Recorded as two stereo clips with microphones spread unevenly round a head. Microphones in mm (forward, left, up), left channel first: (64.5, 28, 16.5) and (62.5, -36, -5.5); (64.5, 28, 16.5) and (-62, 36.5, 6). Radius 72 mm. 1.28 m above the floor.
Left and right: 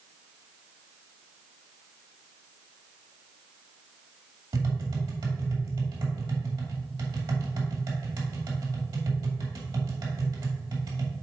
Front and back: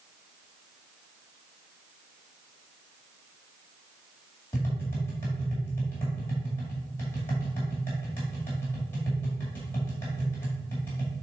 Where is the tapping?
80° right, 1.9 m.